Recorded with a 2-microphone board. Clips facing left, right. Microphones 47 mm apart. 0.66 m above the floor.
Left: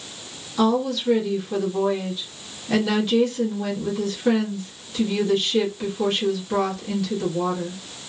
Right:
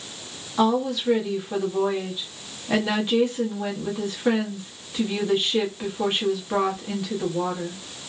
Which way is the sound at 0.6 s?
20° right (ahead or behind).